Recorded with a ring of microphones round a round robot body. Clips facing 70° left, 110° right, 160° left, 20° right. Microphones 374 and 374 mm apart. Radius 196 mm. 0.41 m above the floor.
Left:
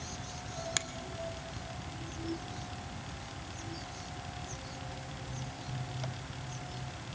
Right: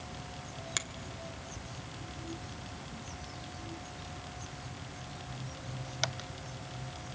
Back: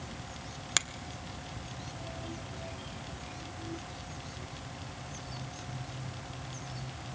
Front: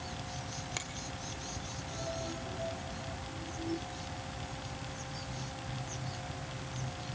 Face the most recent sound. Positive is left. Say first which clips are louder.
# left 2 dB, back 2 dB
turn(degrees=150)